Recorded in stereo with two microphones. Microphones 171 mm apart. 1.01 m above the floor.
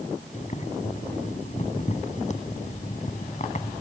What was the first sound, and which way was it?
Boiling, 45° left (ahead or behind).